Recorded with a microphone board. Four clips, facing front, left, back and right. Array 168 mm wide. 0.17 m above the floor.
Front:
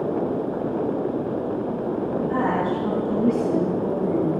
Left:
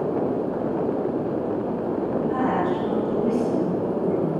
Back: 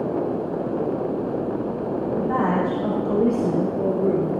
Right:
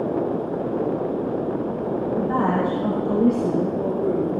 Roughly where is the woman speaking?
Behind right.